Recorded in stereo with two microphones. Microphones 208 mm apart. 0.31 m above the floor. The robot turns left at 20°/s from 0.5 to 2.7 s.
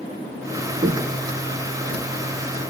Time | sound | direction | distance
0.8 | footsteps | 50° right (ahead or behind) | 0.8 m